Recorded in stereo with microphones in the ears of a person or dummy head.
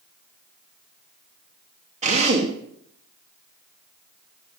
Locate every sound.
2.0 s a drill: 35° right (ahead or behind), 2 m